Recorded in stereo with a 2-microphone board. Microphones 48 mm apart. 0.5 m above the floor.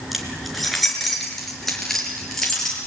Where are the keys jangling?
5° right (ahead or behind), 4.5 m; by 2.9 s 5° left (ahead or behind), 7 m.